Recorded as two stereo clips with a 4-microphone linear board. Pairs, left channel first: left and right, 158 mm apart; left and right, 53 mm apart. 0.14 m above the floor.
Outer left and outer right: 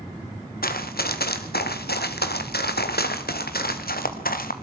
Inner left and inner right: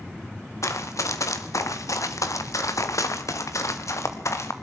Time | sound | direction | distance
0.6 | running footsteps | 70° left (ahead or behind) | 2.5 m